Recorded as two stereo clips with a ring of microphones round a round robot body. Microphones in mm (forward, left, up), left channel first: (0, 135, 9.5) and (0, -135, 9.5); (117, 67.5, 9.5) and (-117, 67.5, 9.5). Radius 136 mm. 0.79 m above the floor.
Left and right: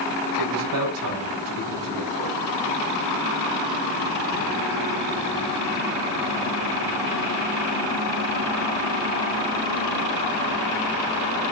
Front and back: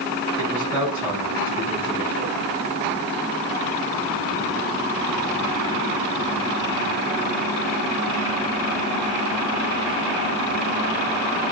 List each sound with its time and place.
0.4 s a man speaking: 95° right, 6.5 m